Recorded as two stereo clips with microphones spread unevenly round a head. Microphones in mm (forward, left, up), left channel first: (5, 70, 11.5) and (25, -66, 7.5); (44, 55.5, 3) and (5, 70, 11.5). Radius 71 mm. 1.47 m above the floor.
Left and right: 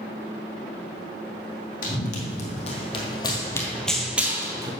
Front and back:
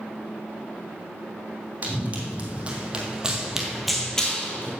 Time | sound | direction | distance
1.8 | running footsteps | 120° left | 2.5 m